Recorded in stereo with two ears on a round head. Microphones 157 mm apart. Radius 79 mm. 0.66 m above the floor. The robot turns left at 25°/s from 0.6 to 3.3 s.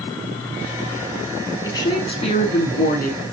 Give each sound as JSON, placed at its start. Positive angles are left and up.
{"t": 1.6, "sound": "a woman speaking", "azimuth_deg": 160, "distance_m": 5.0}